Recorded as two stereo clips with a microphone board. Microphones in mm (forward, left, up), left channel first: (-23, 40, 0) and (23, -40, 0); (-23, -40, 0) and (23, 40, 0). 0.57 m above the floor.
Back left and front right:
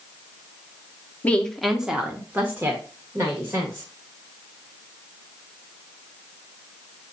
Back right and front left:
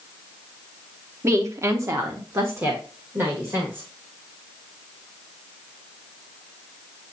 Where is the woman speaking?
65° left, 0.7 m; by 3.9 s 5° right, 2.0 m.